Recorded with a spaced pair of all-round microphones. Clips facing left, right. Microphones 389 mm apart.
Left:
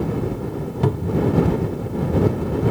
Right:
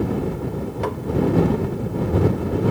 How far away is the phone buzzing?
I don't hear a phone buzzing.